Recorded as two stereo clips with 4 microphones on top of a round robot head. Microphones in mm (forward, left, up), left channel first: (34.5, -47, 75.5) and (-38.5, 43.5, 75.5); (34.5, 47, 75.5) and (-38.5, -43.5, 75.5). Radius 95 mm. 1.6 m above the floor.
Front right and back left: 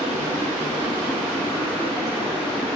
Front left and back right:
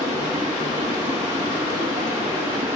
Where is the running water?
110° right, 1.3 m.